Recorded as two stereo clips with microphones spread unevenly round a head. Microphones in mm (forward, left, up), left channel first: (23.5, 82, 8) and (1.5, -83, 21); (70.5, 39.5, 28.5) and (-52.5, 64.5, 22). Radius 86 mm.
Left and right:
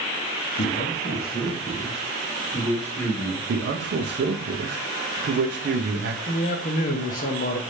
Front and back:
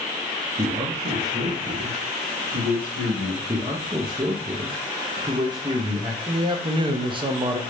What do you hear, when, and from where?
0.6 s a man speaking: 120° left, 0.7 m; by 3.4 s 160° left, 2 m
3.5 s a man speaking: 130° right, 0.7 m
6.3 s a man speaking: 120° left, 0.7 m